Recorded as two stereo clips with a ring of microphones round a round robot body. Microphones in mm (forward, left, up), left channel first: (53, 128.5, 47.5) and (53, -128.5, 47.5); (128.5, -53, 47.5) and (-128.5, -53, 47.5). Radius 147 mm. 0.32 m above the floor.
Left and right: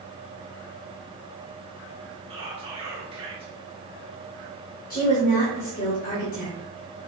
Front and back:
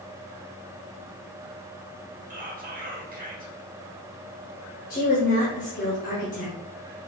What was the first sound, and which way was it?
Whispering, 145° right.